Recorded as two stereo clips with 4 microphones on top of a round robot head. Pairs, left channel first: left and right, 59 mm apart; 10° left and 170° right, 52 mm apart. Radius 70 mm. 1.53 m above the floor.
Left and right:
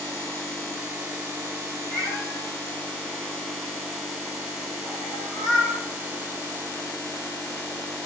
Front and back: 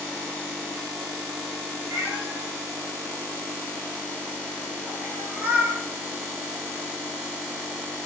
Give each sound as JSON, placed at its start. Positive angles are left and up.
{"t": 1.9, "sound": "a cat meowing", "azimuth_deg": 150, "distance_m": 6.0}